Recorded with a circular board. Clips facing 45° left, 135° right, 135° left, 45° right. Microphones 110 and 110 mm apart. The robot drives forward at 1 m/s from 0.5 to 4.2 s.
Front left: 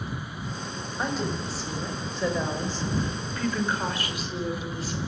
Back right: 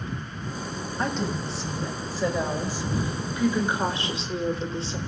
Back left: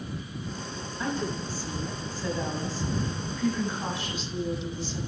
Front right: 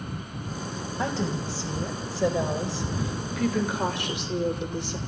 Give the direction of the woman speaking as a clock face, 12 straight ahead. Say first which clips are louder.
Back right 1 dB, front right 2 dB; 1 o'clock.